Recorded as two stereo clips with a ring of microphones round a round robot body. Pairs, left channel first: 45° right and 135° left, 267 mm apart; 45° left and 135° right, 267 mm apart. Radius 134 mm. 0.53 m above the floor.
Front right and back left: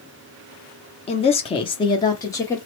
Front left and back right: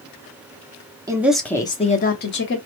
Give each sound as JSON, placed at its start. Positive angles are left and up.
{"t": 1.1, "sound": "a woman speaking", "azimuth_deg": -75, "distance_m": 0.7}